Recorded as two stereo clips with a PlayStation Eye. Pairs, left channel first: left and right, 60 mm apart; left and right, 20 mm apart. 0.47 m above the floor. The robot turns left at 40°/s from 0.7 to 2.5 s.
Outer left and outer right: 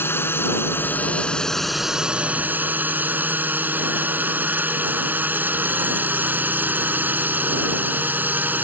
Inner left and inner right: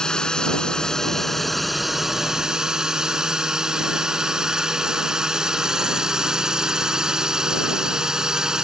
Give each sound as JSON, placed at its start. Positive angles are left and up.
{"t": 0.0, "sound": "a drone", "azimuth_deg": 40}